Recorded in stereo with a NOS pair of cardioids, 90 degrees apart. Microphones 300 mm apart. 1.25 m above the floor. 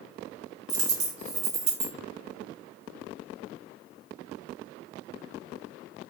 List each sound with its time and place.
0.7 s a dropped coin: 60° right, 1.6 m